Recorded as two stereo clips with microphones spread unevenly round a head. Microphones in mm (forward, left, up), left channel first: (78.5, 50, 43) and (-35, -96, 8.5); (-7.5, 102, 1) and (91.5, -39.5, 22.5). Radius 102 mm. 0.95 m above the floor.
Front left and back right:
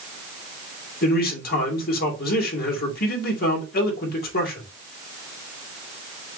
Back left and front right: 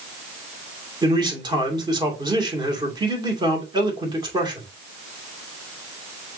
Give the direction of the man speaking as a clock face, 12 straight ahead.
12 o'clock.